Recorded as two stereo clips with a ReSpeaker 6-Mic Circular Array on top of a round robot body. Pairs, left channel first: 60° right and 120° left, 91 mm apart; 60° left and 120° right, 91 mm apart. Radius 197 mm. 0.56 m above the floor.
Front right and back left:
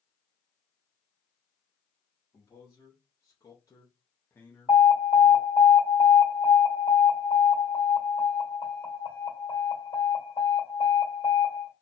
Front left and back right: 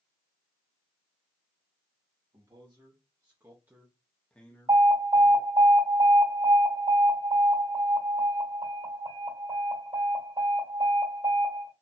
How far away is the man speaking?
About 1.9 m.